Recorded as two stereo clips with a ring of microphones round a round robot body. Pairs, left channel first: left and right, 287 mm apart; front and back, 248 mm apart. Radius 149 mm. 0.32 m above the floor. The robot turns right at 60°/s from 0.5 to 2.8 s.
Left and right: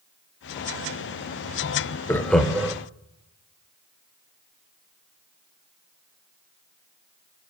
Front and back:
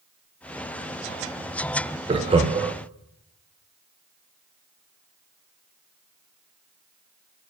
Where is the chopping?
No chopping in this recording.